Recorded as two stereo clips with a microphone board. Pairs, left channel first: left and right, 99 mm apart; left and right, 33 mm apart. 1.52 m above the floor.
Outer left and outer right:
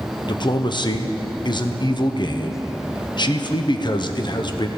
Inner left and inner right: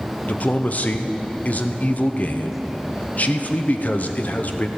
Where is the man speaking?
50° left (ahead or behind), 0.9 m.